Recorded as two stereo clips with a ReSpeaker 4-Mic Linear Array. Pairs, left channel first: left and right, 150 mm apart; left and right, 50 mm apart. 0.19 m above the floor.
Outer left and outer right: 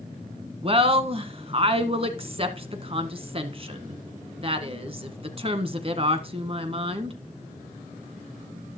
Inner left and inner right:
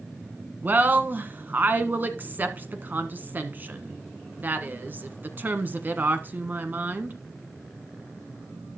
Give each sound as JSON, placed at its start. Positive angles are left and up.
{"t": 0.6, "sound": "a woman speaking", "side_deg": -40, "distance_m": 1.4}